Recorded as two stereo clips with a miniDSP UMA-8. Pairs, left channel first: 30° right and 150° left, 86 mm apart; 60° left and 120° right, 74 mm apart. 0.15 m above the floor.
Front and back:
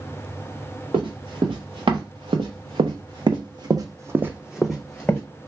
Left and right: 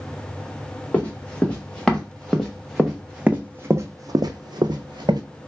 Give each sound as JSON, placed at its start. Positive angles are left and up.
{"t": 0.9, "sound": "running footsteps", "azimuth_deg": 135, "distance_m": 1.7}